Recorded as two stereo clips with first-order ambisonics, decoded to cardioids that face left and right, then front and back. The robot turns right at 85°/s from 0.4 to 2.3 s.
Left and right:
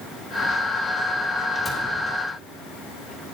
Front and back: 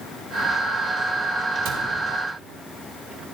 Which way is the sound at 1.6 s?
175° right.